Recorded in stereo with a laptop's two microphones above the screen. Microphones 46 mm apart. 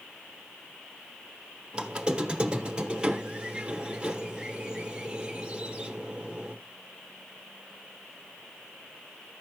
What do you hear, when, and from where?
1.7 s a squeak: 20° right (ahead or behind), 1.1 m